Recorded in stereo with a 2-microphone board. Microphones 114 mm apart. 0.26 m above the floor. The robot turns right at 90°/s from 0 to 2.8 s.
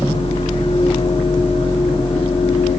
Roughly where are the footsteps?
I don't hear footsteps.